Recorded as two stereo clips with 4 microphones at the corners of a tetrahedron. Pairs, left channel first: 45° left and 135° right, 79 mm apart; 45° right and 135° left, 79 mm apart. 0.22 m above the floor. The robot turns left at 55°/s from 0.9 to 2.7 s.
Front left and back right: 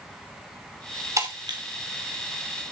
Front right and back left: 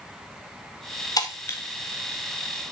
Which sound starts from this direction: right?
Breaking glass, at 1.2 s.